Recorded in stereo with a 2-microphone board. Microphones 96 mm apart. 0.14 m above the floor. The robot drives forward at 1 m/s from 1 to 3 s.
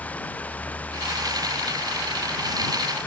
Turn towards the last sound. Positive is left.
turn(degrees=15)  # may be behind; listen again after turning